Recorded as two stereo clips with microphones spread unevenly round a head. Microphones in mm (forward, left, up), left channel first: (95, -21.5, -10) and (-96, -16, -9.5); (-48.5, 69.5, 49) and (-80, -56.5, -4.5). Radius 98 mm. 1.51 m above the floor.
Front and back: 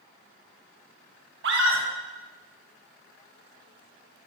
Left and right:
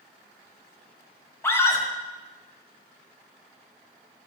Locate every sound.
1.4 s a scream: 145° left, 1.7 m